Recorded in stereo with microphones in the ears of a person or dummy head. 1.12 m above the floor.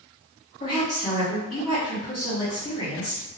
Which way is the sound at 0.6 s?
30° left (ahead or behind).